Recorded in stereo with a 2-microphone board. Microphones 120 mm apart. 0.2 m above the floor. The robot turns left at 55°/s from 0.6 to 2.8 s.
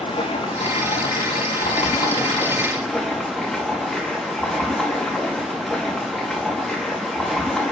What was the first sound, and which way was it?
Running water, 125° left.